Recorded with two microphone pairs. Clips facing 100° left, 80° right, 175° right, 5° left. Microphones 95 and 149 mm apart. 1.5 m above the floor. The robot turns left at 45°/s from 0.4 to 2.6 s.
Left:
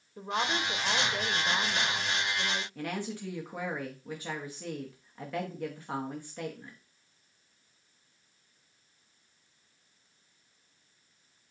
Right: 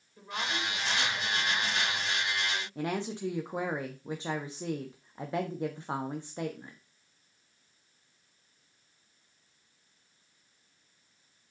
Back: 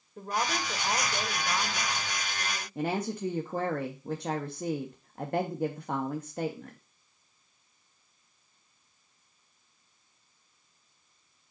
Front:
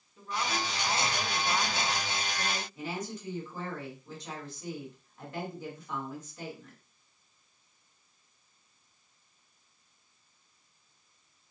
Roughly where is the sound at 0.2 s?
Behind left.